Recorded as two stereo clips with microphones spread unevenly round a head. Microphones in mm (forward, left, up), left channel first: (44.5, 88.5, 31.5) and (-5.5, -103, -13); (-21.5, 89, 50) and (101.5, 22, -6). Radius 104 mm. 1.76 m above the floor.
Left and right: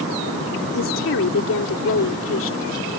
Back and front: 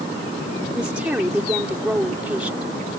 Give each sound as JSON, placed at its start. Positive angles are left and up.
{"t": 0.7, "sound": "a woman speaking", "azimuth_deg": 55}